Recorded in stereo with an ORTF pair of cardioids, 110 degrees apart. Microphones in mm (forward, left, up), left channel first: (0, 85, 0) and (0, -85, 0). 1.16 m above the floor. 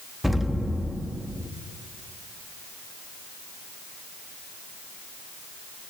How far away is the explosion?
About 1.0 m.